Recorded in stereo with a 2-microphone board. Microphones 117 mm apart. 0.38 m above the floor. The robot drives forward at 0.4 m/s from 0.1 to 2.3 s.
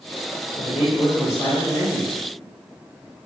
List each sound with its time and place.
0.6 s a man speaking: 30° left (ahead or behind), 1.6 m; by 2.1 s 25° left (ahead or behind), 1.9 m